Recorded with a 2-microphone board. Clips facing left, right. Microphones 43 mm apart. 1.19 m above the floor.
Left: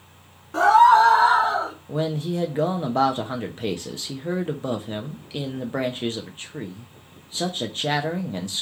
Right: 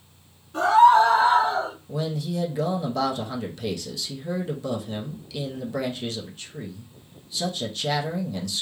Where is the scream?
75° left (ahead or behind), 1.1 m; by 1.8 s 85° left, 2 m.